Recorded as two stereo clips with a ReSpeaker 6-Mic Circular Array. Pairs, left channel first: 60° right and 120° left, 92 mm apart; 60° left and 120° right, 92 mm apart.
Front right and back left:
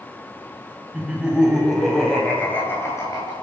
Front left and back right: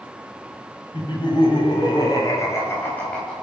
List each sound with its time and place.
0.9 s laughter: 45° left, 3.5 m; by 3.4 s 25° right, 2.5 m